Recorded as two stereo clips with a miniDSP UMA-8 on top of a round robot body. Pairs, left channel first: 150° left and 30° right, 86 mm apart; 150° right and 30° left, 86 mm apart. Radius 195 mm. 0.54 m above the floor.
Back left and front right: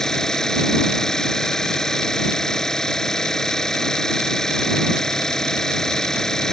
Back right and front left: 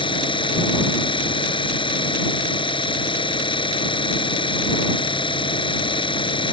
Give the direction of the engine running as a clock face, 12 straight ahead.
4 o'clock.